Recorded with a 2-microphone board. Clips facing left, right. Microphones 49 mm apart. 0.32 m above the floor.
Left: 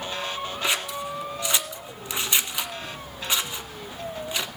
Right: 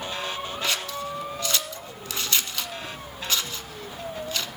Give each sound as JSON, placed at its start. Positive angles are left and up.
{"t": 0.6, "sound": "scissors", "side_deg": 15, "distance_m": 1.1}